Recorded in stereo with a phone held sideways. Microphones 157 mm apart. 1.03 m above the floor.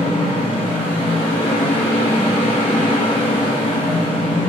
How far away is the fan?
About 0.8 m.